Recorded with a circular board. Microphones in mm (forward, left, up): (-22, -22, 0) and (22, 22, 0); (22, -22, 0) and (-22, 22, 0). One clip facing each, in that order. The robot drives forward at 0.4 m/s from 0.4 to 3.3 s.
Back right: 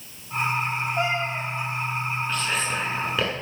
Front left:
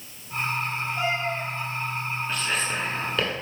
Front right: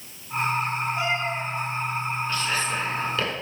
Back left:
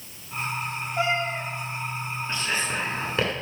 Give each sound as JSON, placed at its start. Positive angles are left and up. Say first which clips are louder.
{"t": 1.0, "sound": "a cat meowing", "louder": "even, even", "azimuth_deg": -165, "distance_m": 2.5}
{"t": 2.3, "sound": "whispering", "louder": "even, back left 1 dB", "azimuth_deg": 130, "distance_m": 1.5}